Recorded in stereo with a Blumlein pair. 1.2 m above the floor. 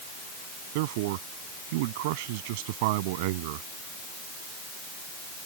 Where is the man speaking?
50° right.